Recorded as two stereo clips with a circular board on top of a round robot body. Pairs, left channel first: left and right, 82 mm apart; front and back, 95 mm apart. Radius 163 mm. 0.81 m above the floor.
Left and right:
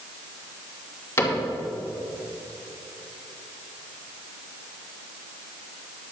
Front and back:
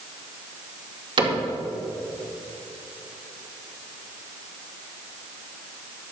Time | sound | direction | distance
1.2 | a cupboard door | 150° left | 2.5 m